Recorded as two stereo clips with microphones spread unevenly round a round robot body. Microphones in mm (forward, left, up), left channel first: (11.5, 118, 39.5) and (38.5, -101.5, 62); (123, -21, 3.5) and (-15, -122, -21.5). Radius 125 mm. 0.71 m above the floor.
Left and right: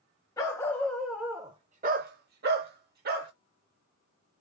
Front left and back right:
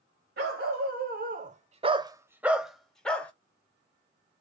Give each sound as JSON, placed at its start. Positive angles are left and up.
{"t": 0.4, "sound": "a dog barking", "azimuth_deg": 175, "distance_m": 0.9}